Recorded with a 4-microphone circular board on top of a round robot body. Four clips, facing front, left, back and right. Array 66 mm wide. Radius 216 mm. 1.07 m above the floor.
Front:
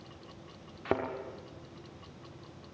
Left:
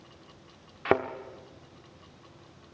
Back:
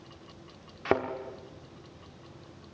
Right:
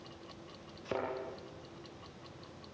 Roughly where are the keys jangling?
I don't hear keys jangling.